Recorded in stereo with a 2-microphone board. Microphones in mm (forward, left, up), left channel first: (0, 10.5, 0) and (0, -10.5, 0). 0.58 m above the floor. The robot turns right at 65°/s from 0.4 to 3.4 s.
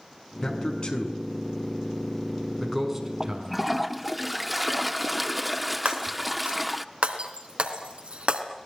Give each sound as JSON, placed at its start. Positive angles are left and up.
{"t": 0.4, "sound": "a man speaking", "side_deg": 25, "distance_m": 5.5}
{"t": 3.2, "sound": "a toilet flushing", "side_deg": -15, "distance_m": 1.0}
{"t": 5.8, "sound": "breaking glass", "side_deg": -80, "distance_m": 3.0}